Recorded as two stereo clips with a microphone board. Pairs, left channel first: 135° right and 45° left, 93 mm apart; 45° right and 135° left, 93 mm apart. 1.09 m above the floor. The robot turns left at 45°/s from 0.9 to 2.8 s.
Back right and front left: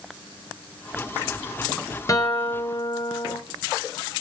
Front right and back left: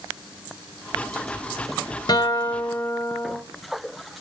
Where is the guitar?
85° right, 1.8 m; by 3.4 s 115° right, 1.8 m.